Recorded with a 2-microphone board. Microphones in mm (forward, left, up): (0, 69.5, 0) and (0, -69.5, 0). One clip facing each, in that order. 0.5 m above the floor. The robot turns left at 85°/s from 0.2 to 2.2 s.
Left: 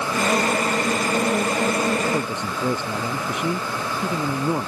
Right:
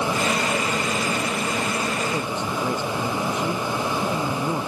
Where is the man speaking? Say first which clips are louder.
Left 1 dB; 10° left (ahead or behind); by 4.7 s 20° left (ahead or behind).